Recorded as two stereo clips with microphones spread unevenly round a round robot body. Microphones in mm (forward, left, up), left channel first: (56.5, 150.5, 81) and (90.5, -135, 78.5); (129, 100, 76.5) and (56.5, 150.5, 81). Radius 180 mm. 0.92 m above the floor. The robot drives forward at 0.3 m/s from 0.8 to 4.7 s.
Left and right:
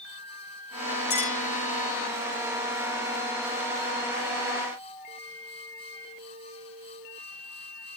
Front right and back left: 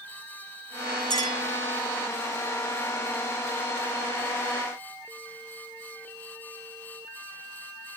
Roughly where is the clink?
Behind.